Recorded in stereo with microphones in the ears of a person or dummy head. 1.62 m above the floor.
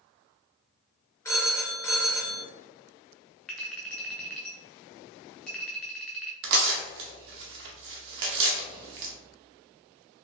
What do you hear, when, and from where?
1.2 s a phone ringing: 15° left (ahead or behind), 0.8 m
3.5 s a clink: 5° left (ahead or behind), 0.6 m
6.4 s tearing paper: 65° right (ahead or behind), 0.8 m